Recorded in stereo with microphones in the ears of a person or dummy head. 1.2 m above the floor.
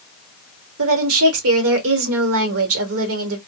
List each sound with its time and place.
0.8 s a woman speaking: 85° right, 1.0 m